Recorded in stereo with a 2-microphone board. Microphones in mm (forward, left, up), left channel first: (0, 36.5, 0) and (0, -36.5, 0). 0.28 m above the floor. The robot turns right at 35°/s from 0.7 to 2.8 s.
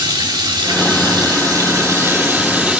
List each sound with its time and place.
0.0 s running water: 80° right, 3.5 m; by 2.8 s 10° right, 3.5 m